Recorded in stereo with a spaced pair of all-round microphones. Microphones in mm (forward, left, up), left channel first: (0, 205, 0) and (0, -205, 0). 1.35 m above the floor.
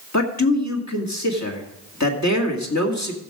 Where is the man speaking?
40° left (ahead or behind), 2 m.